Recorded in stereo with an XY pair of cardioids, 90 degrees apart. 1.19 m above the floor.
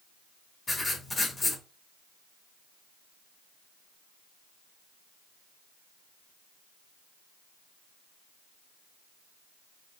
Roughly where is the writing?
Ahead.